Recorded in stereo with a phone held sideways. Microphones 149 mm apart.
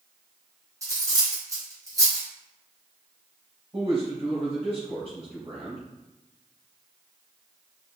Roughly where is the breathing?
I don't hear breathing.